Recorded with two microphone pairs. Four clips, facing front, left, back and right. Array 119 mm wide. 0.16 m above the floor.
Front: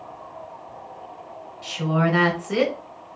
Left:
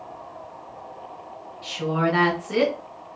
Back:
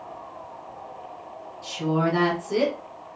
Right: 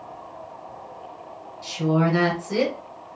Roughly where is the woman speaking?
Ahead left.